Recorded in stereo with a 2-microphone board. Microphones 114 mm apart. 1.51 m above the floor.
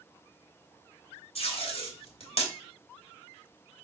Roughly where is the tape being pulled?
Left.